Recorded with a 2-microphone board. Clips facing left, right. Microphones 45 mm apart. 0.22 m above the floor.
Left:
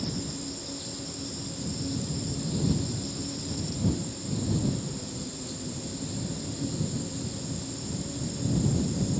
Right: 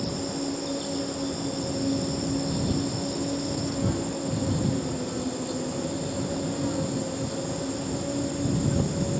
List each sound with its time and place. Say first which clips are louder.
0.0 s an insect: right 5 dB; 60° right (ahead or behind)